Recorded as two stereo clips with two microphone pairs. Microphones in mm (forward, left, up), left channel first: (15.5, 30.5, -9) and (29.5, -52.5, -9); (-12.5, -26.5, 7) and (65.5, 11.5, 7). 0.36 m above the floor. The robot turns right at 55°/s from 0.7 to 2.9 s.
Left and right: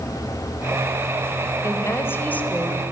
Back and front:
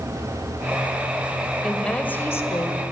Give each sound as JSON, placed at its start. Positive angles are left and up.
{"t": 1.6, "sound": "a woman speaking", "azimuth_deg": 120, "distance_m": 1.8}